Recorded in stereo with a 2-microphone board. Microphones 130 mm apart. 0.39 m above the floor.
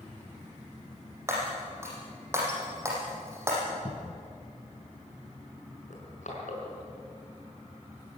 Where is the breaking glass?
20° right (ahead or behind), 7 m.